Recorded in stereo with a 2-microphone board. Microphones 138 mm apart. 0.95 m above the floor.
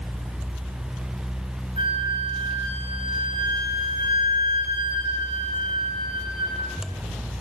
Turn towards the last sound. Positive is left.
turn(degrees=75)  # may be behind; listen again after turning